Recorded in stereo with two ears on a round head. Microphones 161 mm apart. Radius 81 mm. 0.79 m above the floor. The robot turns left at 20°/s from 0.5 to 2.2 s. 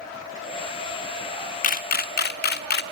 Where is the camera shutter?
50° left (ahead or behind), 1.2 m; by 2.8 s 60° left (ahead or behind), 1.2 m.